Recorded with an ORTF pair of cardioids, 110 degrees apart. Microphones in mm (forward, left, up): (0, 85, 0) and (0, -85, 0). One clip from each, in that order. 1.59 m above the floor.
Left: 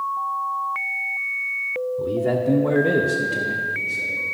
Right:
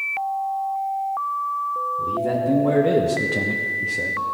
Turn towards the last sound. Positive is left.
turn(degrees=-70)